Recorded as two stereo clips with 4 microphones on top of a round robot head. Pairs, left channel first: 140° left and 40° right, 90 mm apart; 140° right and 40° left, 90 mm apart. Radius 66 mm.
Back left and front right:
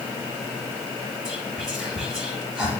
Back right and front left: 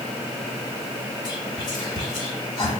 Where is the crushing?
I don't hear crushing.